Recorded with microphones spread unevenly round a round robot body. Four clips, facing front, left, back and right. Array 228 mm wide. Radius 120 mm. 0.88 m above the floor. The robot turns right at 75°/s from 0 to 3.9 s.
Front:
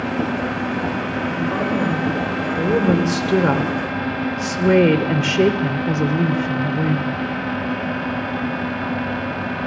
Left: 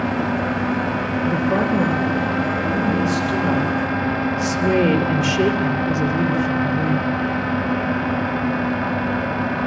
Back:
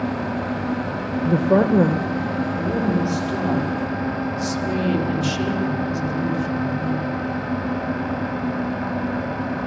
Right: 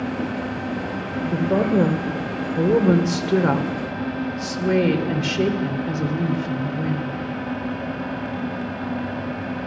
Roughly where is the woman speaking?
Behind.